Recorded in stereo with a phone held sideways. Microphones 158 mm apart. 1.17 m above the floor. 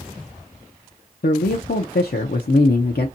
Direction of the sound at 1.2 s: 85° left.